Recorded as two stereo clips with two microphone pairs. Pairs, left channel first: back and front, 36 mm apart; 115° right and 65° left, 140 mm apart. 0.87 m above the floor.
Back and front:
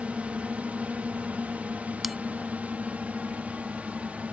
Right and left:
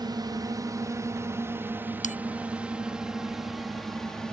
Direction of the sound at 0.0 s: 20° left.